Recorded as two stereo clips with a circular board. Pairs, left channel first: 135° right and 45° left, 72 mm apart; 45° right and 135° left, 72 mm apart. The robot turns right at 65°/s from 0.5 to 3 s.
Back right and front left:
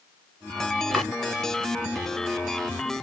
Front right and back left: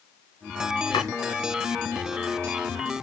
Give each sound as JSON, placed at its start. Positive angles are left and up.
{"t": 0.9, "sound": "chopping", "azimuth_deg": -50, "distance_m": 1.6}